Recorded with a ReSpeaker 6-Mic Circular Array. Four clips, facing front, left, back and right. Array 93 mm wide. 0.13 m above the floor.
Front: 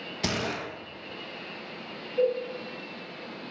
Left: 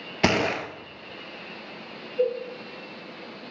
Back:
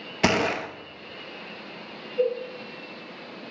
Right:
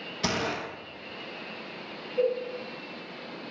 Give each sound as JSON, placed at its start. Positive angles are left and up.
{"t": 0.2, "sound": "a gunshot", "azimuth_deg": 130, "distance_m": 0.5}
{"t": 2.2, "sound": "a cowbell", "azimuth_deg": -75, "distance_m": 1.8}